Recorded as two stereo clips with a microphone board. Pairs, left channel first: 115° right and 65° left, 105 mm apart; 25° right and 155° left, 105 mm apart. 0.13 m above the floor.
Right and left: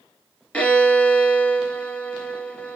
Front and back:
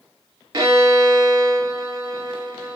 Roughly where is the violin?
Behind.